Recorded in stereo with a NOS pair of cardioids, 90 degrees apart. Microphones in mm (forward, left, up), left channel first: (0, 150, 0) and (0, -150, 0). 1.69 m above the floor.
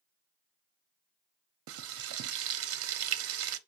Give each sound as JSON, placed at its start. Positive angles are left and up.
{"t": 1.7, "sound": "frying", "azimuth_deg": -55, "distance_m": 0.5}